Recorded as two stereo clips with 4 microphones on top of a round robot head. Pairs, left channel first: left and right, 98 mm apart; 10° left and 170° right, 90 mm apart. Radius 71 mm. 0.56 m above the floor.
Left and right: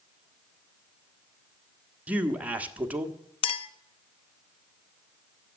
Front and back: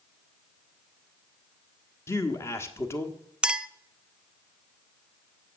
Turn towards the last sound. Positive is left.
turn(degrees=115)